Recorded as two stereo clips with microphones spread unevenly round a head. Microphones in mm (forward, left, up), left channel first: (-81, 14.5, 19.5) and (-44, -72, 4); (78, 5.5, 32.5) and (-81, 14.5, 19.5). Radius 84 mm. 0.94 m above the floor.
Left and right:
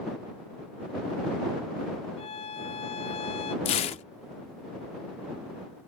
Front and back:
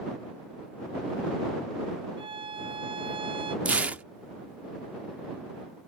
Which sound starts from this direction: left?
Tearing paper, at 3.6 s.